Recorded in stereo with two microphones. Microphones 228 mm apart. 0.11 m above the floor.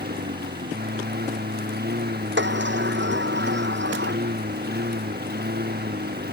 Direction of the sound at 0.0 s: 45° right (ahead or behind).